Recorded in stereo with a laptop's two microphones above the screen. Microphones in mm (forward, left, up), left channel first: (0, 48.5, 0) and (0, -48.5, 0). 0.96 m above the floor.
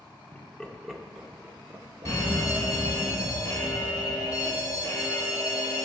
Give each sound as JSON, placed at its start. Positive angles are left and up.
{"t": 0.3, "sound": "laughter", "side_deg": 15, "distance_m": 1.0}
{"t": 2.0, "sound": "an alarm", "side_deg": 40, "distance_m": 3.0}